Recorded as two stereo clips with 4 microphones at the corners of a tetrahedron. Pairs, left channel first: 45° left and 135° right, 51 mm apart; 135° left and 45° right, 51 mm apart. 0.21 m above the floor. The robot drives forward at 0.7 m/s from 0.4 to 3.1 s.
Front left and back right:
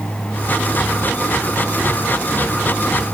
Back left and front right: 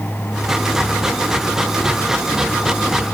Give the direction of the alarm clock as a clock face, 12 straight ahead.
No alarm clock in this recording.